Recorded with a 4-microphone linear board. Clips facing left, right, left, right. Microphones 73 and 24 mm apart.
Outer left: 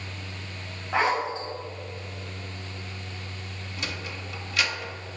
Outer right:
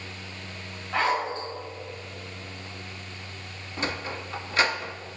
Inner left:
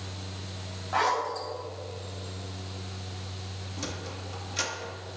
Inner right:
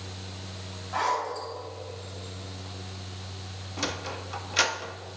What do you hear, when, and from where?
0.9 s a zipper: 20° left (ahead or behind), 3.5 m
3.8 s a sliding door: 35° right (ahead or behind), 0.5 m